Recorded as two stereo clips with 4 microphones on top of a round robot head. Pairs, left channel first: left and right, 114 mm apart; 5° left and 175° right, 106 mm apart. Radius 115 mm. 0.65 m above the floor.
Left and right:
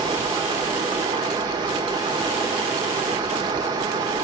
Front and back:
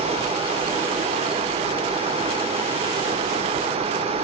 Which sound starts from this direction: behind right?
Running water, at 0.0 s.